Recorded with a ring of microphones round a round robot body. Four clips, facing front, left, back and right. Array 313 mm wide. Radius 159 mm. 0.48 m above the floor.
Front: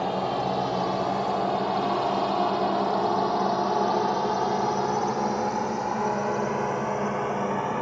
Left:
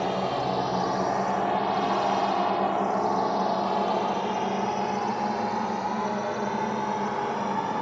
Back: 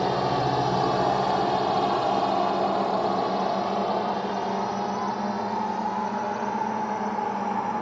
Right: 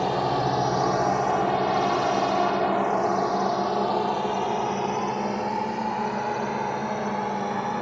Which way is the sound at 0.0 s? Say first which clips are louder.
Right 3 dB, back 2 dB; 140° right.